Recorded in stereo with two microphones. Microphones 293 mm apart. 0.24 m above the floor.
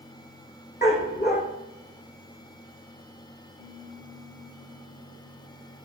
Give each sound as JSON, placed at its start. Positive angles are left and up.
{"t": 0.8, "sound": "a dog barking", "side_deg": 35, "distance_m": 3.5}
{"t": 3.6, "sound": "a piano", "side_deg": 65, "distance_m": 3.5}